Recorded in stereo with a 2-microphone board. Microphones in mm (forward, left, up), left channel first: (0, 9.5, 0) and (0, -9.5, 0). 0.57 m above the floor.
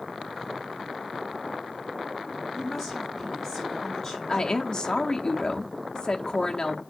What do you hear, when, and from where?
2.5 s a woman speaking: 5° left (ahead or behind), 6.5 m
4.3 s a woman speaking: 35° left (ahead or behind), 0.8 m